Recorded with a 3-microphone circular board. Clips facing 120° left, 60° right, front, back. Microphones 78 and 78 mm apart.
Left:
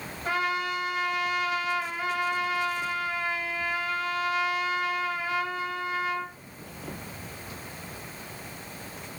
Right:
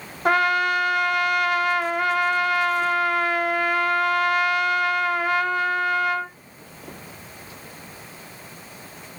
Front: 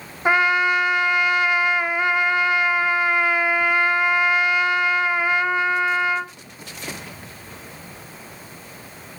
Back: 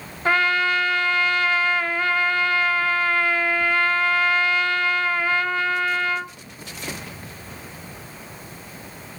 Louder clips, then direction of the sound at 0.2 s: Right 9 dB, front 2 dB; 75° right.